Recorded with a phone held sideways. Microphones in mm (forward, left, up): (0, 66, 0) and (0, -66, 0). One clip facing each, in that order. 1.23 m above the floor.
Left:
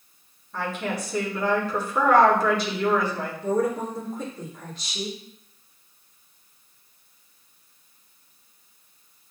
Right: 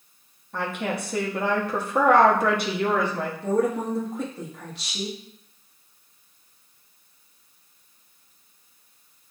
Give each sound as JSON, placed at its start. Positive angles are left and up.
{"t": 0.5, "sound": "a woman speaking", "side_deg": -60, "distance_m": 1.0}
{"t": 3.4, "sound": "a woman speaking", "side_deg": -70, "distance_m": 1.4}